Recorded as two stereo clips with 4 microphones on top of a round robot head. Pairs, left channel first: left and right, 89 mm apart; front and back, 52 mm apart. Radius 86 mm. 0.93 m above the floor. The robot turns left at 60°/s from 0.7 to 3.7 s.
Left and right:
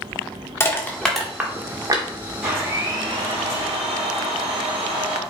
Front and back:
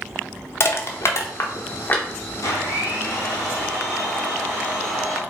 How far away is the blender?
About 1.1 m.